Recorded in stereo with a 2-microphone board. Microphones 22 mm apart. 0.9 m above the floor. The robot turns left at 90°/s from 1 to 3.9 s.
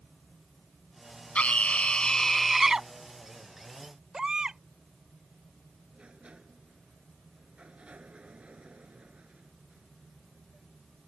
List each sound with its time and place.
1.4 s a scream: 100° left; by 2.9 s 40° right
4.1 s a baby crying: 30° right (ahead or behind)
5.9 s a sliding door: 65° right (ahead or behind)